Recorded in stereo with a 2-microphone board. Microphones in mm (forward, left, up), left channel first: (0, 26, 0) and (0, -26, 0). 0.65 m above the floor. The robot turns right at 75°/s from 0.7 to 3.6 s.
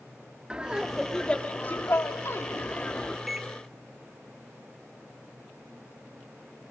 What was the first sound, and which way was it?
Laughter, 20° right.